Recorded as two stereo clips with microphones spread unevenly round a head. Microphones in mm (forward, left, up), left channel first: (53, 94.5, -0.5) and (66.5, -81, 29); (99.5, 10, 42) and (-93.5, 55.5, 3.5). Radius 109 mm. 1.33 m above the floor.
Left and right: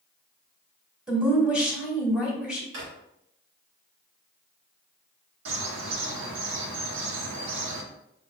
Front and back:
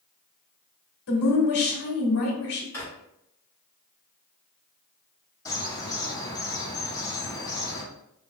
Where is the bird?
90° right, 0.8 m.